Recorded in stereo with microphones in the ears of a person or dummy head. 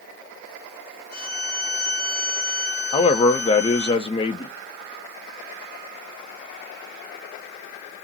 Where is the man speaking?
30° left (ahead or behind), 0.6 m.